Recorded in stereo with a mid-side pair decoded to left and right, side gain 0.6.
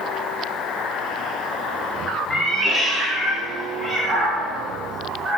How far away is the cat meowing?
About 0.8 m.